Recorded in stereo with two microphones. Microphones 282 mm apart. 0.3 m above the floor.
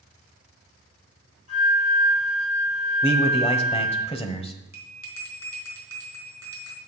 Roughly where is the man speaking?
Left.